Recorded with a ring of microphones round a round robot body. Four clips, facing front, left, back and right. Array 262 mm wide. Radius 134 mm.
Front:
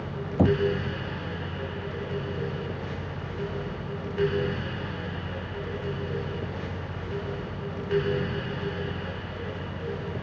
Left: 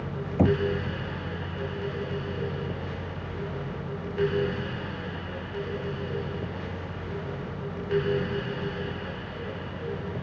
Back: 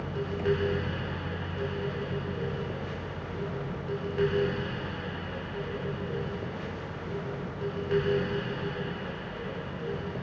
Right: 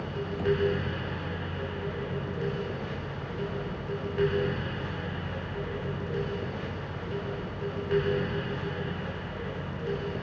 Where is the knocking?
40° left.